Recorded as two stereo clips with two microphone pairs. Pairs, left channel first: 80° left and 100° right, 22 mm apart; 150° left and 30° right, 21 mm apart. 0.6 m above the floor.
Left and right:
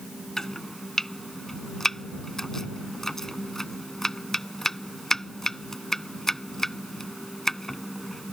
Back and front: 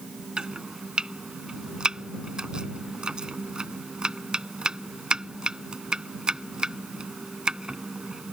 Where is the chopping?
15° left.